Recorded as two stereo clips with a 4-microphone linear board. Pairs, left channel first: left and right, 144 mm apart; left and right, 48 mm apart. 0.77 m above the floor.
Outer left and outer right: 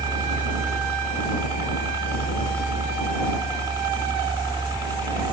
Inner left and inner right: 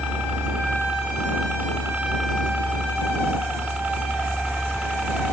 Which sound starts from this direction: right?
A helicopter, at 0.0 s.